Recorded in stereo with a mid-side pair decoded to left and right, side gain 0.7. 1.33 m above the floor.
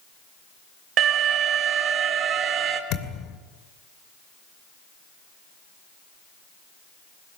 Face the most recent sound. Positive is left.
turn(degrees=65)